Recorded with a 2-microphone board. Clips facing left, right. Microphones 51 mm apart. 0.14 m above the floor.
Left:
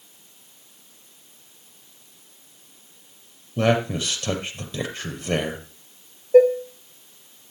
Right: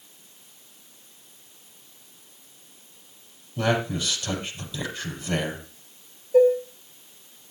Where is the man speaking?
55° left (ahead or behind), 4.5 m.